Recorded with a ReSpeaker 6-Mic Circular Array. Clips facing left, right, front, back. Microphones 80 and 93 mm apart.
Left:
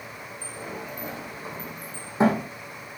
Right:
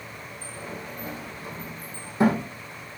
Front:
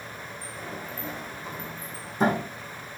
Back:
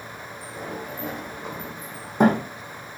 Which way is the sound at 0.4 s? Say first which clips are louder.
Left 1 dB, back 5 dB; 160° left.